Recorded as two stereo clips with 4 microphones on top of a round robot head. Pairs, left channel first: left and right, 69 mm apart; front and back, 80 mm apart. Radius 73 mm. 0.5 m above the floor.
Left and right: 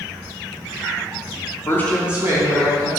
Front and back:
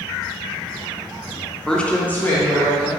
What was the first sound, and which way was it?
A woman speaking, 75° left.